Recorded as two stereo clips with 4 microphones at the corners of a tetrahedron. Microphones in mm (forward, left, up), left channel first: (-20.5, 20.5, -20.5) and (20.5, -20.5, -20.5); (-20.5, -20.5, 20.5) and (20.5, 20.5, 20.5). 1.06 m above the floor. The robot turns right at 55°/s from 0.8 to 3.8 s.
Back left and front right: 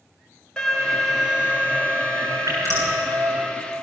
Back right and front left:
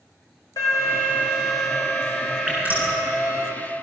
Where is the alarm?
145° right, 5.5 m; by 3.5 s straight ahead, 5.5 m.